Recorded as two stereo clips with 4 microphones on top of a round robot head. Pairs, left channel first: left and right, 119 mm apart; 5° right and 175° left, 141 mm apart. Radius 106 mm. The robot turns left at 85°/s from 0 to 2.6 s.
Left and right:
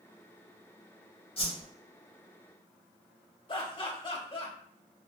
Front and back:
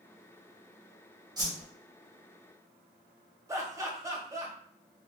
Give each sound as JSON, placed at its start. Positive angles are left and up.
{"t": 1.4, "sound": "a whoosh", "azimuth_deg": 120, "distance_m": 1.5}
{"t": 3.5, "sound": "laughter", "azimuth_deg": 110, "distance_m": 1.2}